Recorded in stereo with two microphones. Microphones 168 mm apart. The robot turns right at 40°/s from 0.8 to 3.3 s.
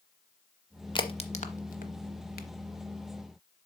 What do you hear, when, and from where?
0.9 s a crack: 30° left (ahead or behind), 0.7 m; by 2.5 s 75° left (ahead or behind), 0.7 m